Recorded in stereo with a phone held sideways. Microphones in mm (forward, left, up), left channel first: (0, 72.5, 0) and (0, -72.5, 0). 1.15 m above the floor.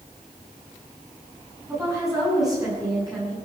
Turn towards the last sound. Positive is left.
turn(degrees=-30)  # may be behind; listen again after turning